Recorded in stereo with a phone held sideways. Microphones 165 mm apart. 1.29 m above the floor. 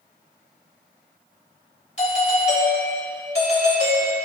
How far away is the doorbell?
About 3 m.